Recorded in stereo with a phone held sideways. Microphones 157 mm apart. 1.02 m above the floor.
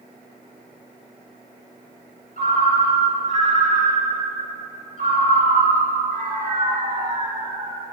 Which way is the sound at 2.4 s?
65° right (ahead or behind).